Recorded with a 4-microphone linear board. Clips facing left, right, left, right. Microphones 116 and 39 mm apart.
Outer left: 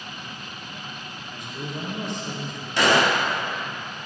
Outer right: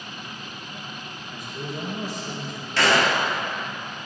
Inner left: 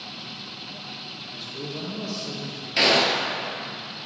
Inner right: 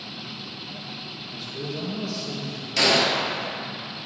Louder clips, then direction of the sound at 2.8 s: Outer left 1 dB, inner left 1 dB; 15° left (ahead or behind).